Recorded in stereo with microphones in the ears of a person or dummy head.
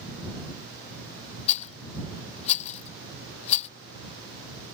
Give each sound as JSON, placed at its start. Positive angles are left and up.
{"t": 1.5, "sound": "a rattle", "side_deg": 35}